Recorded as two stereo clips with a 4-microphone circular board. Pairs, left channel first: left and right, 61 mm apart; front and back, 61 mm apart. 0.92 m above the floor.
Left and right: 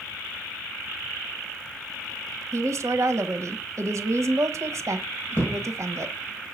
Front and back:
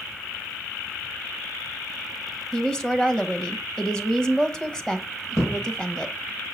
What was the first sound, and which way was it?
A woman speaking, 75° right.